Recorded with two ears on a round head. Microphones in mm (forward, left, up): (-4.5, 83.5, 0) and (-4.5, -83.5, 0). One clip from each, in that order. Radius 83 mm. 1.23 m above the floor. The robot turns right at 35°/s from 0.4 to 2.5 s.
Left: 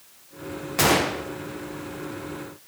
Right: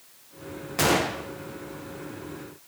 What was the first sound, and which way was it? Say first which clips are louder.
A gunshot: left 3 dB; 5° left (ahead or behind).